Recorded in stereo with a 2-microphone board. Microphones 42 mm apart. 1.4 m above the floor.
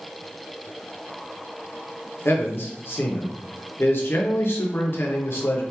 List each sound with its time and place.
2.2 s a man speaking: 60° left (ahead or behind), 1.0 m